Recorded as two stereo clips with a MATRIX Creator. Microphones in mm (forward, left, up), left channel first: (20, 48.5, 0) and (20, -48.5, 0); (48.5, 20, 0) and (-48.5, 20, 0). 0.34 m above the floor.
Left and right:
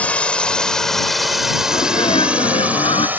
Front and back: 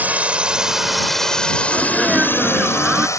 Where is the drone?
140° left; by 3.2 s 30° right.